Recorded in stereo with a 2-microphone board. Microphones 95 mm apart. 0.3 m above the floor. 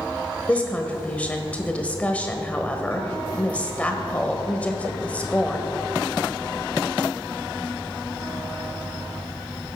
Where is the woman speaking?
15° left (ahead or behind), 1.2 m.